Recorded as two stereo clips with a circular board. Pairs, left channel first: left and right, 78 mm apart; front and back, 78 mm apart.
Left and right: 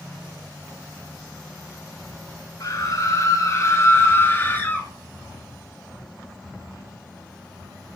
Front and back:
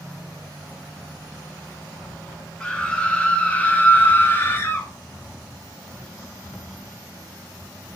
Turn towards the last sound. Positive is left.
turn(degrees=35)